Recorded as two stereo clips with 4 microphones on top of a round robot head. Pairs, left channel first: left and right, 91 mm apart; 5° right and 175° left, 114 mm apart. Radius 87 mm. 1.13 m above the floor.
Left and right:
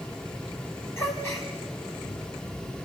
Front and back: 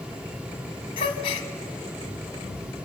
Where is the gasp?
25° left, 1.0 m.